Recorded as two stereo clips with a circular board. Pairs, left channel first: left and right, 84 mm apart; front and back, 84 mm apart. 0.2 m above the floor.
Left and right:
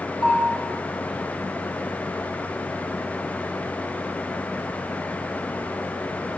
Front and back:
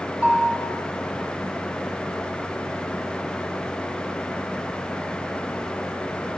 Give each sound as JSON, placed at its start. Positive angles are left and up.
{"t": 0.2, "sound": "a bell", "azimuth_deg": 110, "distance_m": 6.5}